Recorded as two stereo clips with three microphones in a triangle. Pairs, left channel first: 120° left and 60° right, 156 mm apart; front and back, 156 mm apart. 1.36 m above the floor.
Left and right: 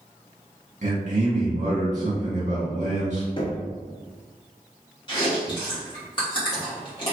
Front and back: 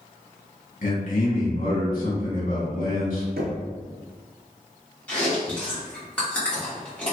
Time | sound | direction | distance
0.8 | a man speaking | 25° right | 1.2 m
3.4 | knocking | straight behind | 0.5 m
5.1 | chewing | 80° left | 1.1 m